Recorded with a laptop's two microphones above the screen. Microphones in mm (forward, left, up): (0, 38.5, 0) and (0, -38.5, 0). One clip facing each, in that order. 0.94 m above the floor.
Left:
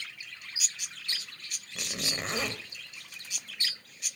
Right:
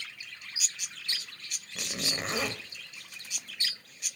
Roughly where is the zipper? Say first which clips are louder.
Right 1 dB; centre.